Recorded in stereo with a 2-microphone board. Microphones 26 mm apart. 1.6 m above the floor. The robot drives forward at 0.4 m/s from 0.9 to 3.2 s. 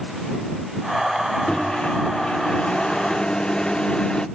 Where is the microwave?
40° left (ahead or behind), 0.5 m; by 4.3 s 30° left (ahead or behind), 0.7 m.